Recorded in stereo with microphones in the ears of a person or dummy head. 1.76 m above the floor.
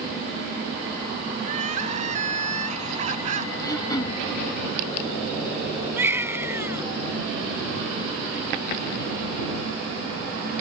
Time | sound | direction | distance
1.4 | crying | 45° right (ahead or behind) | ?
3.6 | throat clearing | 20° left (ahead or behind) | ?
6.0 | a baby crying | 15° right (ahead or behind) | ?